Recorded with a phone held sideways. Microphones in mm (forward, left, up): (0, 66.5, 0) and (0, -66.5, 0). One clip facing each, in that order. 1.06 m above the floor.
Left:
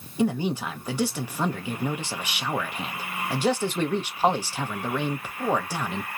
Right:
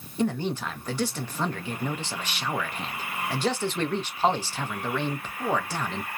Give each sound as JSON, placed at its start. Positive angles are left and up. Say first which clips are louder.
{"t": 0.2, "sound": "a man speaking", "louder": "left 2 dB", "side_deg": 10, "distance_m": 0.6}